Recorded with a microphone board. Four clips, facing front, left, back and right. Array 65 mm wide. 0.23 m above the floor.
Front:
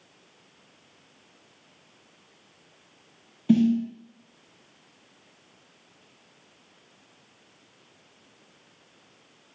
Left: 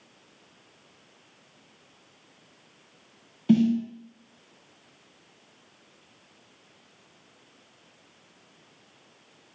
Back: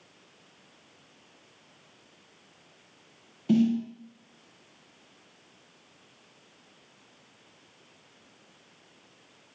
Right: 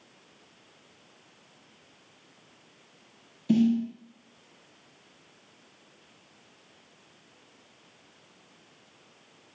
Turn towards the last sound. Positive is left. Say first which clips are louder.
# left 2 dB, front 3 dB
turn(degrees=75)